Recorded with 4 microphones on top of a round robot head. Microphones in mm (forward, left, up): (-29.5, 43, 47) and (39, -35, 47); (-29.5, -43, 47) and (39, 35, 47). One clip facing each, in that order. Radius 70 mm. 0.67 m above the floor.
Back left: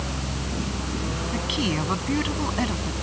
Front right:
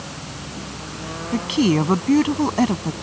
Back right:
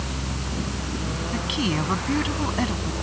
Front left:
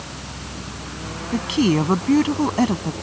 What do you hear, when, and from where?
1.3 s a woman speaking: straight ahead